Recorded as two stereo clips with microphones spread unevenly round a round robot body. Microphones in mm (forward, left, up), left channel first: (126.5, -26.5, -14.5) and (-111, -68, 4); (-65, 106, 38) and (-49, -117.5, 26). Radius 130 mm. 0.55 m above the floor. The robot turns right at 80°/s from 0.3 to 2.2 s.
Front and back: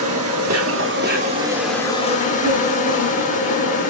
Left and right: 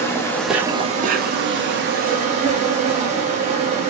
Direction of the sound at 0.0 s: 175° left.